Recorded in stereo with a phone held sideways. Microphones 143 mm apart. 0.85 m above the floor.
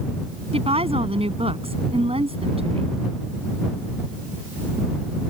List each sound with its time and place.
0.5 s a woman speaking: 45° right (ahead or behind)